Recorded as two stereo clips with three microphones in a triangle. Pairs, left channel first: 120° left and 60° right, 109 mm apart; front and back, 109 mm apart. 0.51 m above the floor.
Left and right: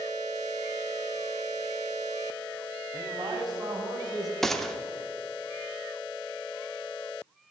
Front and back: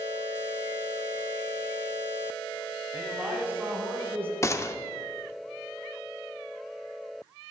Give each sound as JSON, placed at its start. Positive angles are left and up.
{"t": 2.9, "sound": "a man speaking", "azimuth_deg": -105, "distance_m": 3.0}
{"t": 4.4, "sound": "a gunshot", "azimuth_deg": 35, "distance_m": 0.7}